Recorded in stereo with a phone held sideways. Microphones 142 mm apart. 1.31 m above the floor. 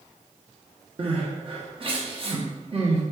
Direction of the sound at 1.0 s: 40° right (ahead or behind).